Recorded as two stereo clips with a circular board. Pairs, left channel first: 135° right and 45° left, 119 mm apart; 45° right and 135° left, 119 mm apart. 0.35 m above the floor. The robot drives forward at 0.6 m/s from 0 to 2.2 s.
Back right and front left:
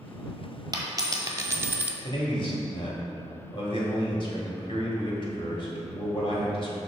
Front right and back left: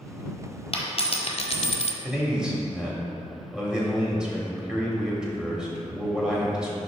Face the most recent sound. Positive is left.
turn(degrees=-145)